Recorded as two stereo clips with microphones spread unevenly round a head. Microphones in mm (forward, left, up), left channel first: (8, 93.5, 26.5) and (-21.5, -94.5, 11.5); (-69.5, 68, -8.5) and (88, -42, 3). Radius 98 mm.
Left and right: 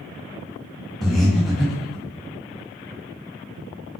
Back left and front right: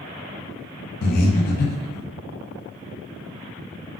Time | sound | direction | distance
1.0 | breathing | 175° left | 0.6 m